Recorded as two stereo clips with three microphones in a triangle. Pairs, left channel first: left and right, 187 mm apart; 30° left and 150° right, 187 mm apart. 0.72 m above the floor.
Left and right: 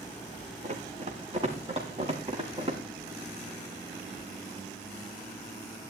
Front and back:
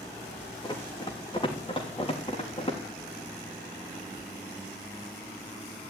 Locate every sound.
0.6 s running footsteps: 35° right, 3 m; by 2.8 s 30° right, 4.5 m